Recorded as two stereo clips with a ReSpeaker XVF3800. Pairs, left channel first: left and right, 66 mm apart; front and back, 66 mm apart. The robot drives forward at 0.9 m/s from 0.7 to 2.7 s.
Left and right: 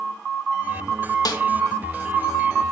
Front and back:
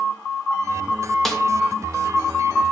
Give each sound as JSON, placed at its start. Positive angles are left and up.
{"t": 1.2, "sound": "a snare drum", "azimuth_deg": 90, "distance_m": 1.9}